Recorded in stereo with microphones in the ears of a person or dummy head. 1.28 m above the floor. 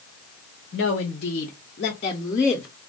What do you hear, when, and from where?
0.7 s a woman speaking: 50° left (ahead or behind), 0.8 m; by 2.7 s 15° left (ahead or behind), 0.8 m